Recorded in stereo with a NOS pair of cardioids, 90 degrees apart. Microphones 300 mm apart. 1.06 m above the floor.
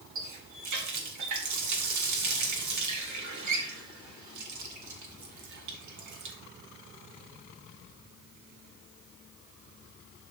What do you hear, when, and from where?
0.1 s a running tap: 70° right, 2 m